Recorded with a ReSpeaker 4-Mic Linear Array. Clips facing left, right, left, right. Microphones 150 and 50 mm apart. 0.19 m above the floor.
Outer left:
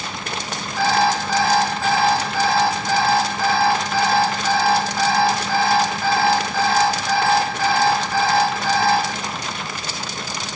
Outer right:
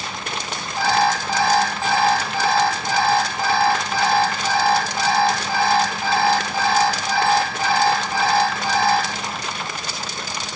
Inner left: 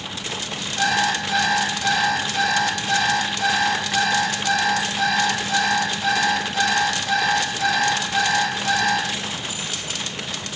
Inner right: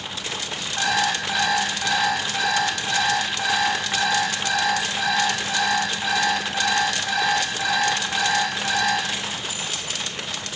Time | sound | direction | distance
0.8 | an alarm clock | 20° right (ahead or behind) | 5 m